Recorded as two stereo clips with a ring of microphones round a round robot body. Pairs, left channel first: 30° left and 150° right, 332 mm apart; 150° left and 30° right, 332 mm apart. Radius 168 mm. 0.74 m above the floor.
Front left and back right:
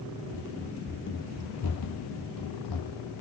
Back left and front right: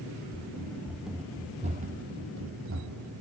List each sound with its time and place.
0.3 s running footsteps: 100° left, 0.8 m; by 3.2 s 10° left, 1.5 m